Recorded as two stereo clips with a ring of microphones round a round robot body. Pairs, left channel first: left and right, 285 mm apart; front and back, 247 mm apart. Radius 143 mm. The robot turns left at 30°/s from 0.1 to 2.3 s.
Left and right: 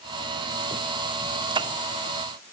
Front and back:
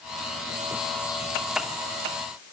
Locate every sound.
Only background noise.